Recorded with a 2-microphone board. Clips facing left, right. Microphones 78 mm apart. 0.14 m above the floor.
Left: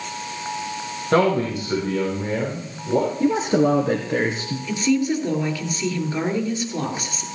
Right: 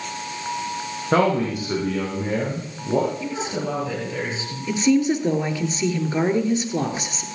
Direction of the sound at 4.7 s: 25° right (ahead or behind).